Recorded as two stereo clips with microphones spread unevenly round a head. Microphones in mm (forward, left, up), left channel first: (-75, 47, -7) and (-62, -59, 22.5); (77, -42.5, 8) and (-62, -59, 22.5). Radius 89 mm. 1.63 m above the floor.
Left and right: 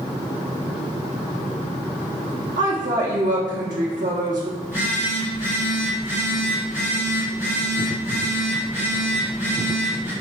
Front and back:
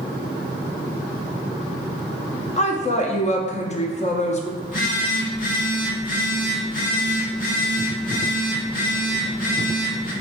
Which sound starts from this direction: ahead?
A phone buzzing, at 4.6 s.